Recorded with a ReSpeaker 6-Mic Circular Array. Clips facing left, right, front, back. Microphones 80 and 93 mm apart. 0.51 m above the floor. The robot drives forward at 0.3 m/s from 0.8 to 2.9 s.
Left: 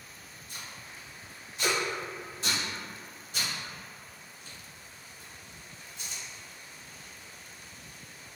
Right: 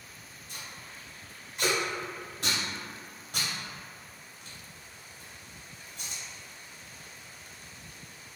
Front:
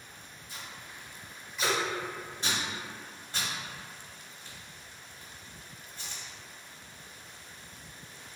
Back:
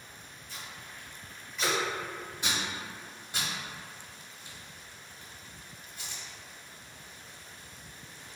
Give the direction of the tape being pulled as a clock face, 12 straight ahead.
2 o'clock.